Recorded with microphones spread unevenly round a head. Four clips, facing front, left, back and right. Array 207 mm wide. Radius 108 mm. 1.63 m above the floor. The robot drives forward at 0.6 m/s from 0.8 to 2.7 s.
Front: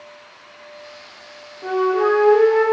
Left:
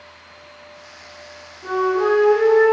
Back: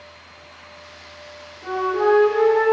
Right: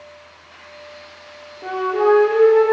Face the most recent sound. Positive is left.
turn(degrees=-95)